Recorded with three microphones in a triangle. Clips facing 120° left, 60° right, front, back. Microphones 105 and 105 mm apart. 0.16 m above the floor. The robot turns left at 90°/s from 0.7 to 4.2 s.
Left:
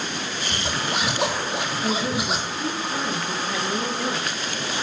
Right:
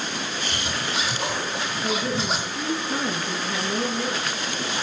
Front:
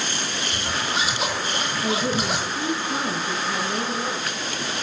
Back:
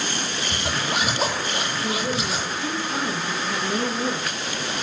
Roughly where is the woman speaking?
Left.